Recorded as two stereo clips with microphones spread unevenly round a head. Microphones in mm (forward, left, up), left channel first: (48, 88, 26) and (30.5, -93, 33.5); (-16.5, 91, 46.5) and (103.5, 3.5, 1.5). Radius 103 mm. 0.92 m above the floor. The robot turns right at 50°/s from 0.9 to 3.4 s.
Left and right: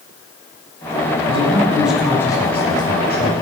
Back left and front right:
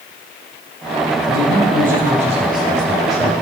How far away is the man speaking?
About 7.5 m.